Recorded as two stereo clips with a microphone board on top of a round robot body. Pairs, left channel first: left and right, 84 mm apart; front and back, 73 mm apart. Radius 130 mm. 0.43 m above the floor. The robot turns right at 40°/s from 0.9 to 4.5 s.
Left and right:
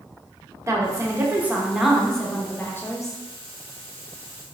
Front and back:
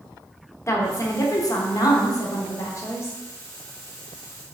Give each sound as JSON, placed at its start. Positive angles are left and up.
{"t": 0.7, "sound": "a woman speaking", "azimuth_deg": -40, "distance_m": 1.2}